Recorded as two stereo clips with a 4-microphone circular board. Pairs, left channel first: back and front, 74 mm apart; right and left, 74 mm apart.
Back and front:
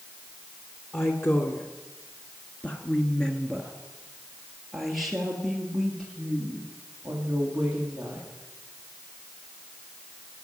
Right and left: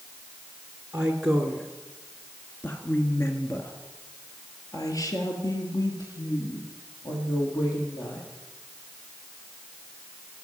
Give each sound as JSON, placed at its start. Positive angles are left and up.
{"t": 0.9, "sound": "a woman speaking", "azimuth_deg": 155, "distance_m": 1.5}